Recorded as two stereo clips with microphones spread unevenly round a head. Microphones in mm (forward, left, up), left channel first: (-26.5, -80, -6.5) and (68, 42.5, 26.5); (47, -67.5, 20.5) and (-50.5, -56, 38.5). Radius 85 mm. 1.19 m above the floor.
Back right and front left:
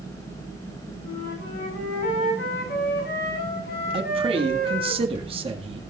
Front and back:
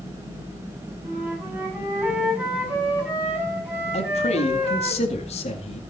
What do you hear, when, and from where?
1.0 s a flute: 115° right, 8 m
3.9 s a man speaking: 5° right, 2 m